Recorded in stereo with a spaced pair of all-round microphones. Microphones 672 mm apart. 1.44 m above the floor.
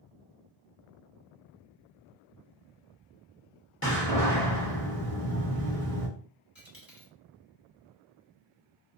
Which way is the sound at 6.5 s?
30° left (ahead or behind).